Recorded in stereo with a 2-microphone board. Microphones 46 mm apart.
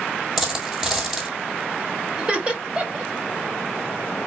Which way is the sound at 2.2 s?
25° right (ahead or behind).